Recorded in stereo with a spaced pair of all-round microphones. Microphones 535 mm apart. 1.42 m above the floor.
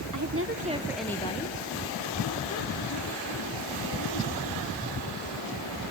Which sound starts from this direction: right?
A woman speaking, at 0.1 s.